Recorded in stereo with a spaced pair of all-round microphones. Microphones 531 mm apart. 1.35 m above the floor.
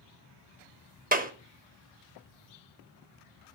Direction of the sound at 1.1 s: 15° right (ahead or behind).